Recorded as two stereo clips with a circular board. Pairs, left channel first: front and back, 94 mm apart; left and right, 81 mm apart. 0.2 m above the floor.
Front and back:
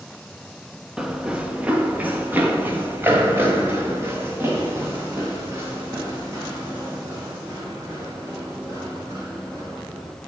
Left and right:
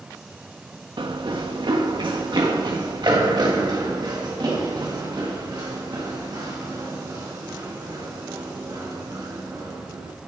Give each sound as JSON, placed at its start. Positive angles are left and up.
{"t": 1.0, "sound": "running footsteps", "azimuth_deg": -95, "distance_m": 1.0}